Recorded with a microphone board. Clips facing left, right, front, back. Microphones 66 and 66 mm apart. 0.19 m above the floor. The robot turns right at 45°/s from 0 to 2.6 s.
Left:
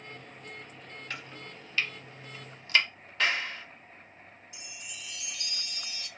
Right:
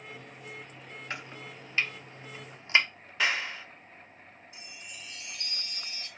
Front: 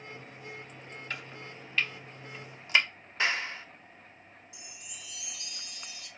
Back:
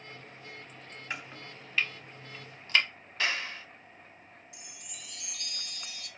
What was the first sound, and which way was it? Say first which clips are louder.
Chopping: right 3 dB, back 2 dB; 130° right.